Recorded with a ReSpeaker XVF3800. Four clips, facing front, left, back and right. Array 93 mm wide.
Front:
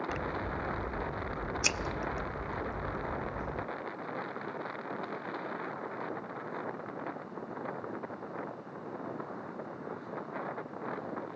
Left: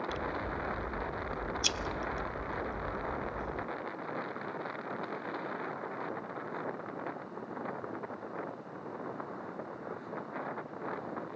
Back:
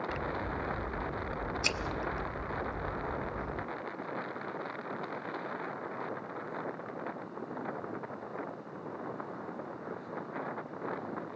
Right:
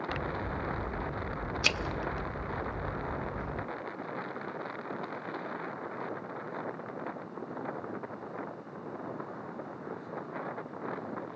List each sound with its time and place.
0.1 s scissors: 75° right, 0.7 m